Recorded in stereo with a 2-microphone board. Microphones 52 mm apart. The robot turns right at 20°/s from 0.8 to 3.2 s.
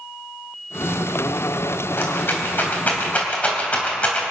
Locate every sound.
2.0 s a rattle: 50° left (ahead or behind), 3 m; by 4.2 s 25° left (ahead or behind), 3 m